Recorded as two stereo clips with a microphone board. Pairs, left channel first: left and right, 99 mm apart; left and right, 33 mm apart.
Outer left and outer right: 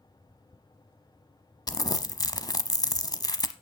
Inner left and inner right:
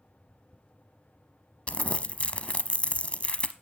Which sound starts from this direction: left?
Crumpling, at 1.7 s.